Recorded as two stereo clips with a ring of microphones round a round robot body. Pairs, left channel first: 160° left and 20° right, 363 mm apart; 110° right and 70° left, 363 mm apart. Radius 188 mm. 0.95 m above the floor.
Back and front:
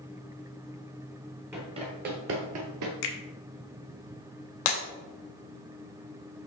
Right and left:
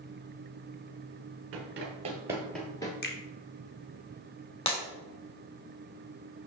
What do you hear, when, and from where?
1.5 s running footsteps: 60° left, 1.0 m; by 2.9 s 35° right, 1.3 m
3.0 s a finger snap: 175° right, 1.2 m
4.7 s breaking glass: 170° left, 1.7 m